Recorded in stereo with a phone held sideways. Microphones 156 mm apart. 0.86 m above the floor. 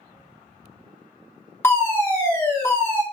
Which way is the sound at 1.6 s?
15° left (ahead or behind).